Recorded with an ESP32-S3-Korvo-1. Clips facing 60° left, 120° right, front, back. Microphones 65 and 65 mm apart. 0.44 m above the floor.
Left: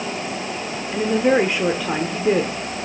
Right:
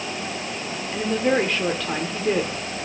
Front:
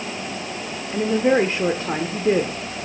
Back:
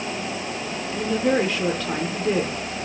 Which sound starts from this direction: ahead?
A woman speaking, at 0.9 s.